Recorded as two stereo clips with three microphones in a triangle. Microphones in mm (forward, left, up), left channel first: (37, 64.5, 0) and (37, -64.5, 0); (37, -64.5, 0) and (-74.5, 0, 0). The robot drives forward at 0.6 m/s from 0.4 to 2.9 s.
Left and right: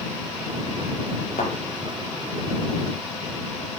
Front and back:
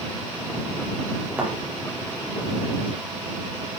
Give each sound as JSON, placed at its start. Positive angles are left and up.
{"t": 1.4, "sound": "a thud", "azimuth_deg": 70, "distance_m": 5.5}